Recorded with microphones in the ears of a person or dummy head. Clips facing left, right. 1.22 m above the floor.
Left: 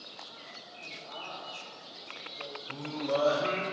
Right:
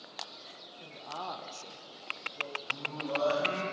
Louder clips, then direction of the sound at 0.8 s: Right 5 dB; 50° right (ahead or behind).